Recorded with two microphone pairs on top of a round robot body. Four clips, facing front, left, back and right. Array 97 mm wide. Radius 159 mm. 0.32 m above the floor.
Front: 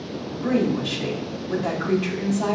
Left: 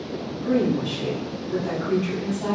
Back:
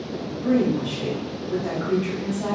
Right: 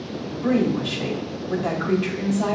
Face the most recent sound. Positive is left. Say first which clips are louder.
# right 1 dB, back 1 dB
turn(degrees=-70)